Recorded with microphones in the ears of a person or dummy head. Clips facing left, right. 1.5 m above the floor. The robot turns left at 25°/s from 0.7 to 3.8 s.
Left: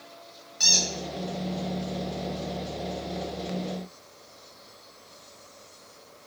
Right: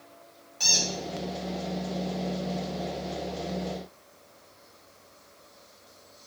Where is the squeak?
15° left (ahead or behind), 1.0 m; by 0.9 s 10° left (ahead or behind), 1.0 m.